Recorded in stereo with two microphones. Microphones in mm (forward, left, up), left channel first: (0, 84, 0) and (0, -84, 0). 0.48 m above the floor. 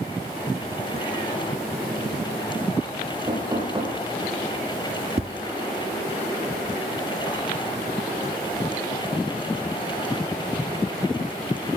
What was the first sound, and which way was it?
Knocking, 30° right (ahead or behind).